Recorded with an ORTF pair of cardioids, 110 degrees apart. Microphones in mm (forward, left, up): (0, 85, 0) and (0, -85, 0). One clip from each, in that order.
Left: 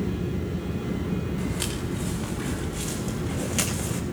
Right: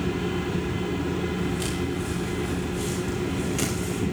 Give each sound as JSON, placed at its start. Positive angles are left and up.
{"t": 1.4, "sound": "footsteps", "azimuth_deg": 40, "distance_m": 8.0}